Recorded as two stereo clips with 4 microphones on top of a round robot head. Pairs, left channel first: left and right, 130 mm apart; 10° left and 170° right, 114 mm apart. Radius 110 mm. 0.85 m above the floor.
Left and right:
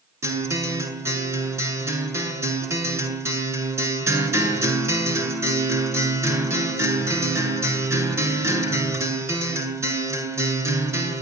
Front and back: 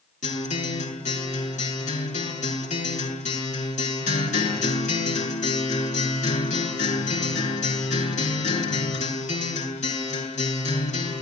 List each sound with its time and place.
0.2 s a guitar: 20° right, 7.5 m